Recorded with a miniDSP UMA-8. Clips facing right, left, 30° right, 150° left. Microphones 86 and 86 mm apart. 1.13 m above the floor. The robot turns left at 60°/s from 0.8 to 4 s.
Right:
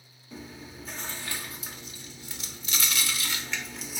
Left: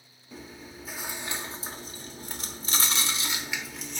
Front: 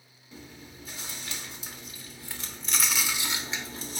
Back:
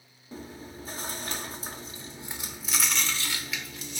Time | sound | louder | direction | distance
0.3 | chewing | right 1 dB, back 6 dB | straight behind | 0.9 m